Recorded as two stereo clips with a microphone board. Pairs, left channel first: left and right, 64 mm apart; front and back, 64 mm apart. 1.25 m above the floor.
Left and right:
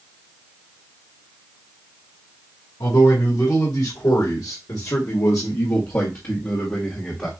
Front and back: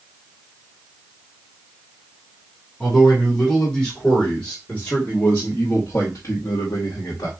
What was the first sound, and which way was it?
A man speaking, 85° left.